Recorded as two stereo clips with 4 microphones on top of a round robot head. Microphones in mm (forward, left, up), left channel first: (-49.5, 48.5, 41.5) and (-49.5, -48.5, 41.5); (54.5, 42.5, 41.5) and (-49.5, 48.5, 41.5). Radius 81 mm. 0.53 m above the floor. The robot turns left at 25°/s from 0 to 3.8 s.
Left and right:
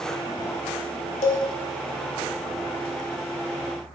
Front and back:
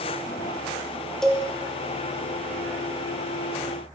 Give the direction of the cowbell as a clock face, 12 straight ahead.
9 o'clock.